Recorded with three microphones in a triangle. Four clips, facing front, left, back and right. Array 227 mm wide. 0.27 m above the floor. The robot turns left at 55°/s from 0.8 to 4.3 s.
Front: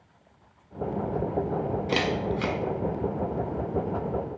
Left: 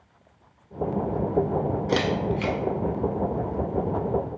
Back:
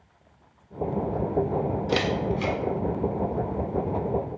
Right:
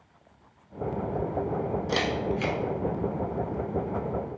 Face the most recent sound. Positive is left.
turn(degrees=-55)